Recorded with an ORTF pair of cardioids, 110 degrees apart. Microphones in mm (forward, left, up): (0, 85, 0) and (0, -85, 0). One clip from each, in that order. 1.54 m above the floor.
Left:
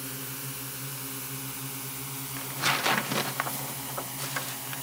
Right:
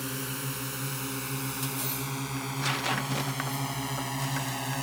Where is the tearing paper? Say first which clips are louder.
Left 5 dB; 25° left.